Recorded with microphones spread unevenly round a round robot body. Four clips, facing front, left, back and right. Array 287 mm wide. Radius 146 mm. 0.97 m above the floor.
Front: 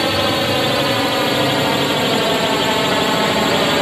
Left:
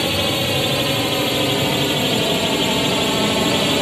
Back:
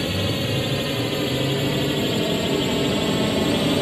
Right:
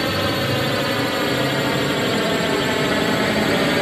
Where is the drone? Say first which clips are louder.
Even, front 8 dB; 5° right; by 3.8 s 15° right.